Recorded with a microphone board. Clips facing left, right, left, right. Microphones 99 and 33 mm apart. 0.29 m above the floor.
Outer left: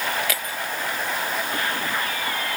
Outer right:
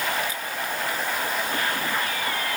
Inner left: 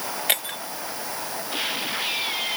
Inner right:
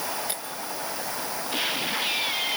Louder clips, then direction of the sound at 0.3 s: Outer left 2 dB, inner left 8 dB; 90° left.